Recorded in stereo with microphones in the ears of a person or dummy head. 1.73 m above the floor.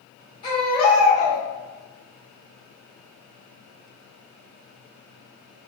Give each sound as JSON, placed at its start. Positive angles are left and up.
{"t": 0.4, "sound": "a baby crying", "side_deg": 40, "distance_m": 1.8}